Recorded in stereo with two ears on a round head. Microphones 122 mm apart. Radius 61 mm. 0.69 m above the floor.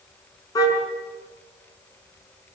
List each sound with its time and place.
0.6 s a car horn: 30° left (ahead or behind), 5 m